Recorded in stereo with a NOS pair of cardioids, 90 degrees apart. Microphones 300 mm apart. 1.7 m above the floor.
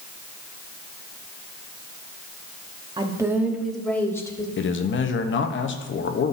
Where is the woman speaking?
15° right, 1.1 m; by 4.5 s 15° left, 1.6 m.